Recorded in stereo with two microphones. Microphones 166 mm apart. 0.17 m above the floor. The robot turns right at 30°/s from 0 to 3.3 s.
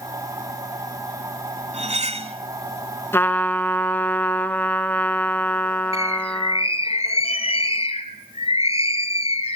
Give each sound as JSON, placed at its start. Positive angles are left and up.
{"t": 1.7, "sound": "cutlery clinking", "side_deg": -40, "distance_m": 0.9}
{"t": 3.1, "sound": "a trumpet", "side_deg": 15, "distance_m": 0.8}
{"t": 5.9, "sound": "a bird", "side_deg": 35, "distance_m": 1.3}